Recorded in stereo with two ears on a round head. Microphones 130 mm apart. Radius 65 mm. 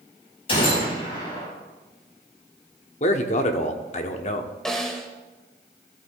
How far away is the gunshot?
About 5 m.